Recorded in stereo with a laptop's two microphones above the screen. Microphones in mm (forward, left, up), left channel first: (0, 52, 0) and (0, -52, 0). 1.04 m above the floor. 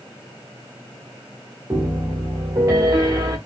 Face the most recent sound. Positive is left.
turn(degrees=-30)  # may be behind; listen again after turning